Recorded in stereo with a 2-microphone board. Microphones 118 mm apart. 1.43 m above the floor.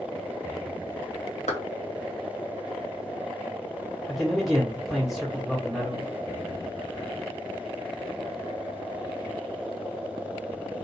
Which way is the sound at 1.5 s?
75° left (ahead or behind).